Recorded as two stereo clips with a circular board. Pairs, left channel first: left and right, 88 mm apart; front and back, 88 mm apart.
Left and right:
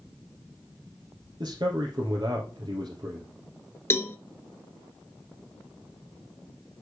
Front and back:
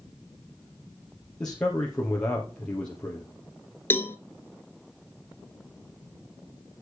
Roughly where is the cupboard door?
I don't hear a cupboard door.